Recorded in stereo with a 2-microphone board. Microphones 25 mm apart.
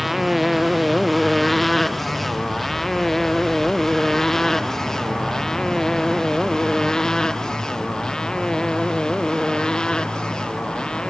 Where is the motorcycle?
5° right (ahead or behind); by 11.1 s 35° left (ahead or behind).